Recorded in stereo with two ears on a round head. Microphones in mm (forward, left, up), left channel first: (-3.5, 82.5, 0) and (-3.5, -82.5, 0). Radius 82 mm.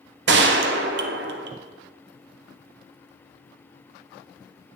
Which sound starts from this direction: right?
A gunshot, at 0.3 s.